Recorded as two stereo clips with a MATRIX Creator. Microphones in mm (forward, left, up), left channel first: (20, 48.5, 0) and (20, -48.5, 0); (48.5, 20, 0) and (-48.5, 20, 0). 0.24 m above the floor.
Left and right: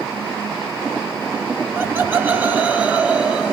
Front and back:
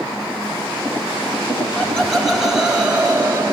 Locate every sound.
1.8 s laughter: 70° right, 1.7 m; by 3.5 s 165° right, 1.7 m